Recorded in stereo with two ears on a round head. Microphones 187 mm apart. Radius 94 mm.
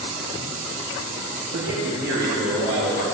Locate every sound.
1.5 s a man speaking: 60° right (ahead or behind), 2.5 m; by 3.0 s 55° right (ahead or behind), 4 m